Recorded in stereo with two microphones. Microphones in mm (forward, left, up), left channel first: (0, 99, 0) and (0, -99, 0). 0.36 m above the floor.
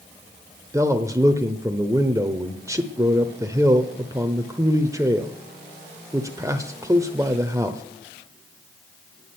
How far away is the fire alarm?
I don't hear a fire alarm.